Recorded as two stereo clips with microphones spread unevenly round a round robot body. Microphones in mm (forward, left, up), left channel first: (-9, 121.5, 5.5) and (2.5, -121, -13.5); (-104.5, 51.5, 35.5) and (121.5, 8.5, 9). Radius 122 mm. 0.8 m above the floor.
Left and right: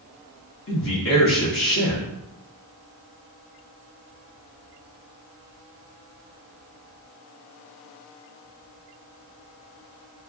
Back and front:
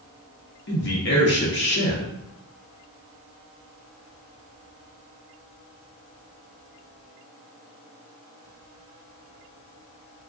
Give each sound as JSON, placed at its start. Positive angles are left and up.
{"t": 0.7, "sound": "a man speaking", "azimuth_deg": 130, "distance_m": 1.2}